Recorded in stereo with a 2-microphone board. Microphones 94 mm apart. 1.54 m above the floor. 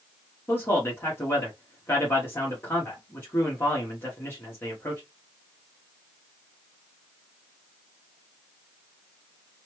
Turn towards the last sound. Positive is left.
turn(degrees=25)  # may be behind; listen again after turning